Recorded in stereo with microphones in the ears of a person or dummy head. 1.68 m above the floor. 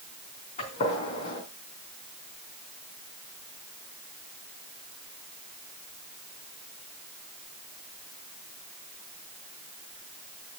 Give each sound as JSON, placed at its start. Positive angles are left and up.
{"t": 0.6, "sound": "a gunshot", "side_deg": 40, "distance_m": 3.5}